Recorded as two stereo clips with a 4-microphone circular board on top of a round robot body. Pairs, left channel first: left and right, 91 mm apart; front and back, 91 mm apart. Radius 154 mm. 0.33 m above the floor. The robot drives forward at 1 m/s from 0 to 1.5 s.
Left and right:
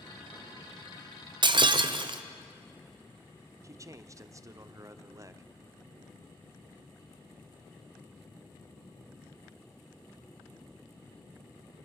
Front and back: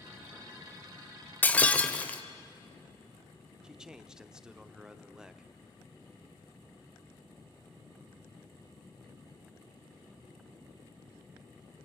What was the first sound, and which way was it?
Breaking glass, 70° right.